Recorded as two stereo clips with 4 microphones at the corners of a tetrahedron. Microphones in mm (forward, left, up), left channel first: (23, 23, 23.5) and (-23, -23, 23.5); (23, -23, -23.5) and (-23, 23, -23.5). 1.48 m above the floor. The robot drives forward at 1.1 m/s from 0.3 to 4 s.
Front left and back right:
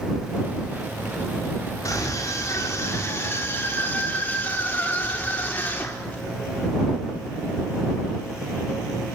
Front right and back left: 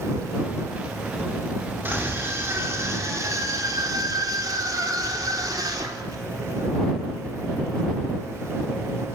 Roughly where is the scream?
Left.